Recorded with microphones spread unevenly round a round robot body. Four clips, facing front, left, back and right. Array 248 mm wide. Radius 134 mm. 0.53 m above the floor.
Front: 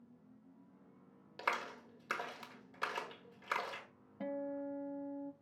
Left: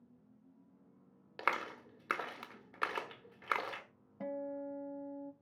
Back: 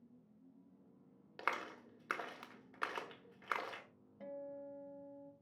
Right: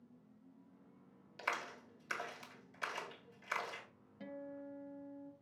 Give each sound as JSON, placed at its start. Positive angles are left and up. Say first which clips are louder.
{"t": 1.4, "sound": "a clap", "louder": "left 5 dB, front 2 dB", "azimuth_deg": 75, "distance_m": 1.1}
{"t": 4.2, "sound": "a guitar", "louder": "left 8 dB, front 7 dB", "azimuth_deg": 35, "distance_m": 0.6}